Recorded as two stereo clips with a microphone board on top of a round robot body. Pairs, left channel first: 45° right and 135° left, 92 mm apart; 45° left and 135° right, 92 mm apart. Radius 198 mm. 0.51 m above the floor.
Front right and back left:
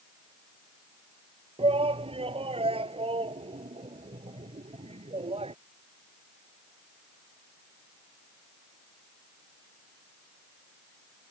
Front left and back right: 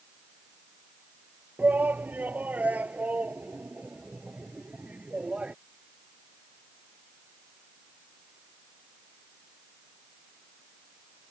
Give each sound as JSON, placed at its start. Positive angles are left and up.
{"t": 1.6, "sound": "a shout", "azimuth_deg": 150}